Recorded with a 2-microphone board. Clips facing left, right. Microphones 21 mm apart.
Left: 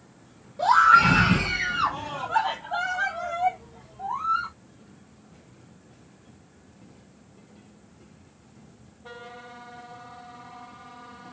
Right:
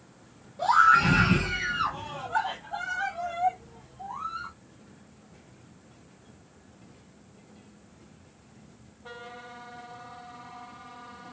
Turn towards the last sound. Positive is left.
turn(degrees=30)  # may be behind; listen again after turning